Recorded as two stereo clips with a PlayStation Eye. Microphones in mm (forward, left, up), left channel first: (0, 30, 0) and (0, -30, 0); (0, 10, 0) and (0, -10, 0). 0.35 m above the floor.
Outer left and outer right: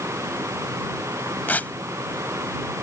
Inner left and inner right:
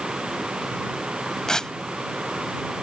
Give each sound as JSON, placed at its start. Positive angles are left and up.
{"t": 1.5, "sound": "tearing paper", "side_deg": 30}